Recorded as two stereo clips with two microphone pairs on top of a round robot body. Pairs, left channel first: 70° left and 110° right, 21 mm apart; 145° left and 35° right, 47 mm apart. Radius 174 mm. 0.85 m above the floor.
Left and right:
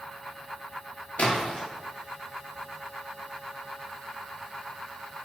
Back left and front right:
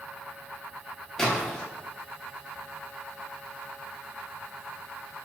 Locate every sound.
1.2 s a splash: 65° left, 0.7 m